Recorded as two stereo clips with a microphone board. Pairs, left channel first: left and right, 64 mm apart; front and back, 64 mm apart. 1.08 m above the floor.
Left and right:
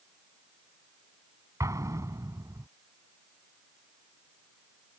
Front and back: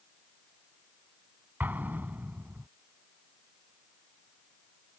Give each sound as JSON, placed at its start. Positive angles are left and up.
{"t": 1.6, "sound": "an explosion", "azimuth_deg": -120}